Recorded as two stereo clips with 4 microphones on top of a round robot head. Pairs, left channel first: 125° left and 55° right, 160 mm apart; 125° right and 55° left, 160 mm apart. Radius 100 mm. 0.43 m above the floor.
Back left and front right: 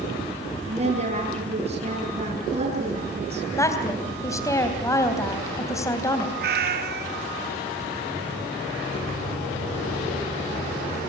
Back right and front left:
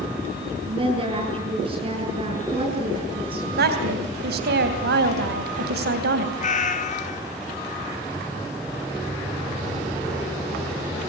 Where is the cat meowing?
80° right, 2 m.